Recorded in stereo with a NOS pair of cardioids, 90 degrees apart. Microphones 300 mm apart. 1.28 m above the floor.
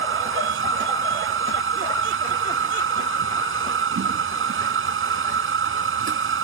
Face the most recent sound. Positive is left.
turn(degrees=-40)